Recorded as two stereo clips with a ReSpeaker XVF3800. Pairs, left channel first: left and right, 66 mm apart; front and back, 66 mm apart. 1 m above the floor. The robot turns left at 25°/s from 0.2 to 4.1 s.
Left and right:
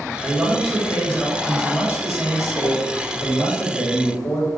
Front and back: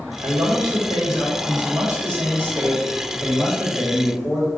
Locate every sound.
0.2 s a man speaking: straight behind, 1.3 m; by 4.5 s 85° left, 1.3 m